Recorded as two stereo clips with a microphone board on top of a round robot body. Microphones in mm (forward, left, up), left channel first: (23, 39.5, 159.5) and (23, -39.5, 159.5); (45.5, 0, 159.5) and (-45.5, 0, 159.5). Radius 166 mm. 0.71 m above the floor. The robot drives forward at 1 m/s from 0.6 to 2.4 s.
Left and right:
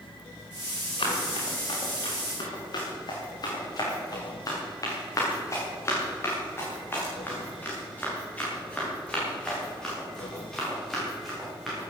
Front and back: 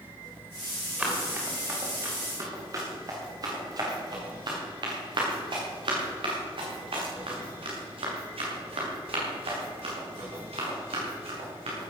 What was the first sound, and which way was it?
Running footsteps, 100° left.